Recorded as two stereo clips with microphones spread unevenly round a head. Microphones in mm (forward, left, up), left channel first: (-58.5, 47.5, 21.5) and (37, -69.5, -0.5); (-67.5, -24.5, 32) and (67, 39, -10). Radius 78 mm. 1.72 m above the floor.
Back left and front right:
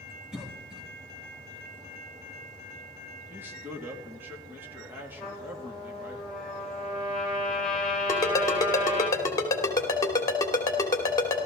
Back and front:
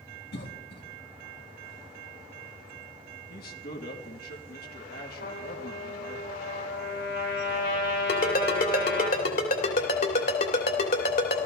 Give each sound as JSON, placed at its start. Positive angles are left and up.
{"t": 0.3, "sound": "a cough", "azimuth_deg": -140, "distance_m": 3.0}
{"t": 3.3, "sound": "a man speaking", "azimuth_deg": -130, "distance_m": 2.5}
{"t": 5.2, "sound": "a trumpet", "azimuth_deg": -145, "distance_m": 7.0}
{"t": 8.1, "sound": "a ringtone", "azimuth_deg": -165, "distance_m": 3.0}